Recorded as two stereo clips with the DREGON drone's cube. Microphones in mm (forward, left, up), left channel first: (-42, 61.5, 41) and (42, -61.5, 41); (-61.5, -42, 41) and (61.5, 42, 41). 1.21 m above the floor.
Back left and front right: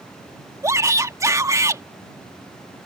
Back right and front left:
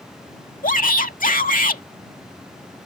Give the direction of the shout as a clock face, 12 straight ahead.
4 o'clock.